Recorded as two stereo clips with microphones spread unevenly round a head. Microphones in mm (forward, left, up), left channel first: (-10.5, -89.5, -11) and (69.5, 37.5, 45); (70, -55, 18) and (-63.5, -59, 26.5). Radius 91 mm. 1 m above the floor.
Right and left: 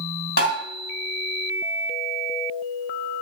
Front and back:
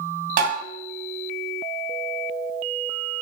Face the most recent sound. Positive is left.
turn(degrees=-170)